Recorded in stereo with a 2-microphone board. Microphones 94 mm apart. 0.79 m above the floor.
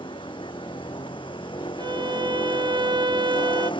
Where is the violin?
55° right (ahead or behind).